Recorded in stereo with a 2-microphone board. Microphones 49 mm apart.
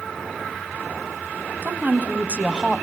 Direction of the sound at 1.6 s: 40° right (ahead or behind).